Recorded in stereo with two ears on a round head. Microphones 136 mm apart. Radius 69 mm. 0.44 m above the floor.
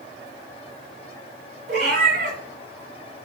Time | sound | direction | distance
1.7 | a cat meowing | 60° right (ahead or behind) | 2 m